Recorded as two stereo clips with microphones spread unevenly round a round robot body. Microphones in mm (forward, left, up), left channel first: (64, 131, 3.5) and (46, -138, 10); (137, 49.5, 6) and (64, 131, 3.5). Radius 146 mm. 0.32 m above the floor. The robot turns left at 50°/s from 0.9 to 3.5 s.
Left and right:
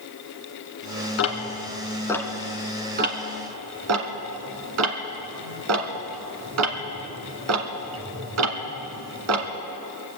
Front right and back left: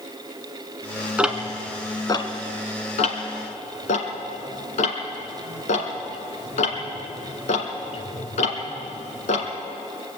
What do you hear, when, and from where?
1.2 s ticking: 50° left, 1.4 m; by 9.5 s 65° right, 1.4 m